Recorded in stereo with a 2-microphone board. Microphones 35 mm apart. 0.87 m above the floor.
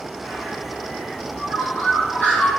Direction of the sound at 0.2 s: 35° left (ahead or behind).